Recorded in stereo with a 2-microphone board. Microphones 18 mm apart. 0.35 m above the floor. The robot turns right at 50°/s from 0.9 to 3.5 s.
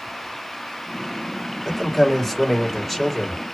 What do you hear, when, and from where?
1.6 s a man speaking: 25° left (ahead or behind), 1.5 m; by 3.4 s 5° right (ahead or behind), 1.5 m